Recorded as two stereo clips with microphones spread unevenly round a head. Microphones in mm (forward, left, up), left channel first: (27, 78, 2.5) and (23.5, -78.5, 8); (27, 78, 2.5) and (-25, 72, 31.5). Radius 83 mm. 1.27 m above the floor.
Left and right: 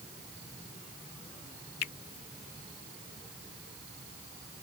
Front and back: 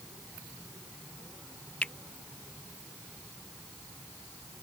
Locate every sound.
1.8 s a finger snap: 75° left